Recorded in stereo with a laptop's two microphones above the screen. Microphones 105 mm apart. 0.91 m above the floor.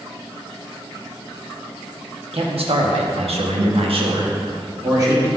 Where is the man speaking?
65° right (ahead or behind), 1.2 m; by 5.3 s 30° right (ahead or behind), 1.3 m.